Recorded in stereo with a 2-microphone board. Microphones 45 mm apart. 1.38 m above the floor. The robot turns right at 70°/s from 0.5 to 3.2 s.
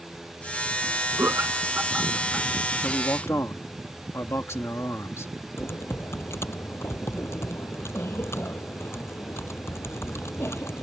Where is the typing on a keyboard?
70° left (ahead or behind).